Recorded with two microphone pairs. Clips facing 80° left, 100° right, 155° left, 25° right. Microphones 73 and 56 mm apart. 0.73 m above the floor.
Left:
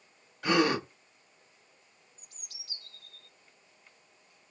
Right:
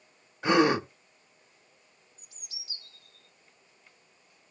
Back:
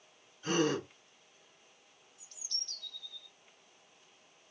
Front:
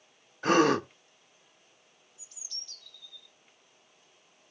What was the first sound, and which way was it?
A gasp, 35° right.